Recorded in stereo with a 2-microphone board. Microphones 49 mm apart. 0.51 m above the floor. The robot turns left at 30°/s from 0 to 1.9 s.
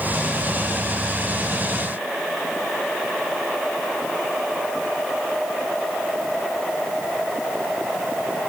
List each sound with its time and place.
Only background noise.